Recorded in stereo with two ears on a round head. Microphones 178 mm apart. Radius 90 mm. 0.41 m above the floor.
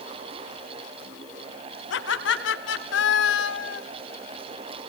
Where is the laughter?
75° left (ahead or behind), 3.5 m; by 3.8 s 65° left (ahead or behind), 2 m.